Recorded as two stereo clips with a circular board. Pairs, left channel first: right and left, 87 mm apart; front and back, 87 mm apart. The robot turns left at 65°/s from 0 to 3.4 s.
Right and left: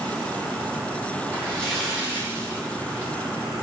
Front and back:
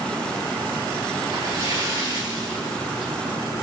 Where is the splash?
150° right, 2.0 m; by 3.1 s 90° left, 2.0 m.